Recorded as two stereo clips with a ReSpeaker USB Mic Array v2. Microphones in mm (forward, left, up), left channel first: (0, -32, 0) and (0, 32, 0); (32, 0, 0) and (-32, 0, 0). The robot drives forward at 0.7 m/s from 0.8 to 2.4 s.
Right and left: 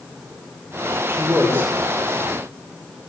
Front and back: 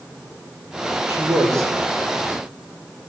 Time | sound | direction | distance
1.1 | a man speaking | 140° left | 4.5 m